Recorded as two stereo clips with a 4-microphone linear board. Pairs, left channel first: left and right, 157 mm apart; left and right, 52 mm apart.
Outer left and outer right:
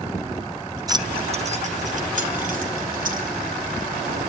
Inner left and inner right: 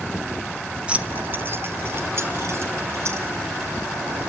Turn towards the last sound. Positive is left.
turn(degrees=-60)  # may be behind; listen again after turning